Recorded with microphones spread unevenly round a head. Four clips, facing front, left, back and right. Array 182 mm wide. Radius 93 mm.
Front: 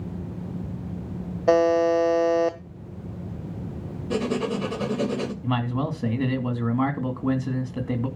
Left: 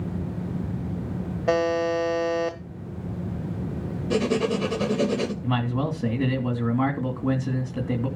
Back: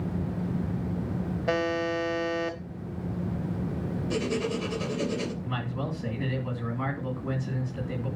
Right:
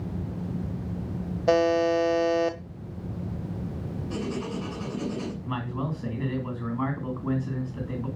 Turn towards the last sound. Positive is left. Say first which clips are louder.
# left 6 dB, front 7 dB
turn(degrees=50)